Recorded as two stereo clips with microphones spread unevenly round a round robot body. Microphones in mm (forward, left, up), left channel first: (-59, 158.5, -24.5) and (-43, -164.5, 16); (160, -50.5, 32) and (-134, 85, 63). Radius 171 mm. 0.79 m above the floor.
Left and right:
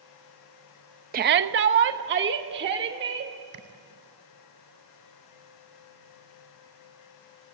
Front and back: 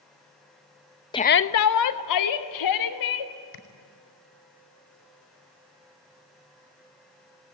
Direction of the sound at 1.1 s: 55° right.